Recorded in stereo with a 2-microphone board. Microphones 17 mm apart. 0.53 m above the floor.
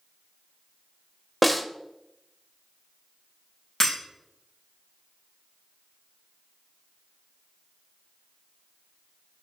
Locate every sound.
1.4 s a snare drum: 5° left (ahead or behind), 0.5 m
3.8 s breaking glass: 35° left (ahead or behind), 3.5 m